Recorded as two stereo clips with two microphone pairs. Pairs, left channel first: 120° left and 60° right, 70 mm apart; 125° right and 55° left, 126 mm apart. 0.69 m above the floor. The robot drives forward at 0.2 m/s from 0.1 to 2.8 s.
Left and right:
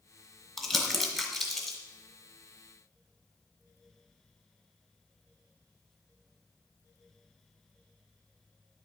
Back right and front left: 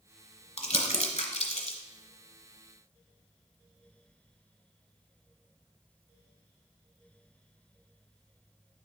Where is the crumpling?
155° right, 1.4 m; by 1.8 s 160° right, 1.6 m.